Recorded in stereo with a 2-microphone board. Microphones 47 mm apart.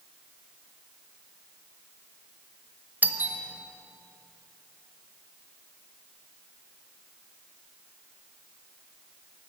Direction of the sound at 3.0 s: 40° right (ahead or behind).